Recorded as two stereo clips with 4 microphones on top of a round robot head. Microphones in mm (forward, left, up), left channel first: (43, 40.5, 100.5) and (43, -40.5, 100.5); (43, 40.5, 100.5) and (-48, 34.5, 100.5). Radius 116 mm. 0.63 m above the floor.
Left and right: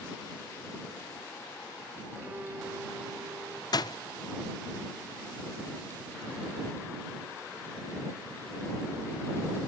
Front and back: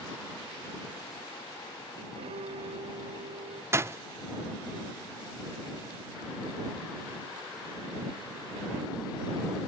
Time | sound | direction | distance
2.1 | a violin | 160° right | ?
3.7 | a door slam | 125° left | ?